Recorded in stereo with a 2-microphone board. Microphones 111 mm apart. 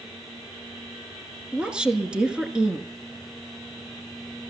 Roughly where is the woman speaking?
Centre.